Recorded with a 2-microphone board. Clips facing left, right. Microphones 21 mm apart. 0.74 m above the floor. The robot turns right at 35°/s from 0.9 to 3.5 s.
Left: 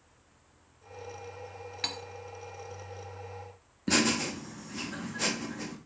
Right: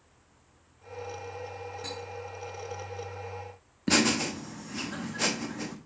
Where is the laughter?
20° right (ahead or behind), 0.8 m.